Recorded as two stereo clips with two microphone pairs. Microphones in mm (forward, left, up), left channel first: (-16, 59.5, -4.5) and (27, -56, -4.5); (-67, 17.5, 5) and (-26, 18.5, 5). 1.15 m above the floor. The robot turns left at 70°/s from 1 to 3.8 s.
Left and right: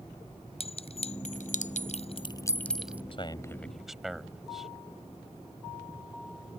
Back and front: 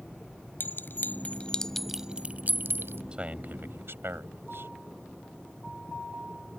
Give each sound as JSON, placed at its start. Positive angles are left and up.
{"t": 0.6, "sound": "a clink", "azimuth_deg": 145}
{"t": 3.1, "sound": "a man speaking", "azimuth_deg": 65}